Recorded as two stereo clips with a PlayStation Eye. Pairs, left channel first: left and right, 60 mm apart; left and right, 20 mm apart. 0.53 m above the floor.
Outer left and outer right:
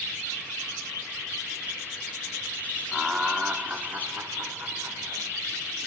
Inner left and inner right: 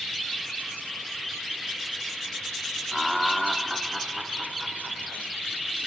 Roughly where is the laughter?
Centre.